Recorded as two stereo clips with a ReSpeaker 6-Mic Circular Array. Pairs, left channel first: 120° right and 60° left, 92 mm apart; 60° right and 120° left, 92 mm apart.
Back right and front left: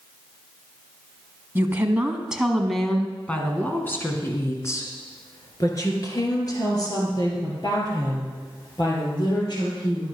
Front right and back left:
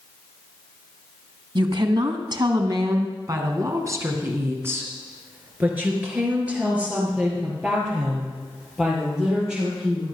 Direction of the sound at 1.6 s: 120° left.